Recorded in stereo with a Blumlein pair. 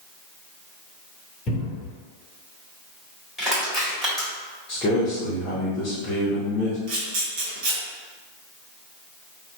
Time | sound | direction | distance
1.5 | a cupboard door | 25° left | 1.4 m
3.4 | crushing | straight ahead | 1.4 m
4.7 | a man speaking | 25° left | 0.8 m
6.9 | a camera shutter | 45° right | 1.0 m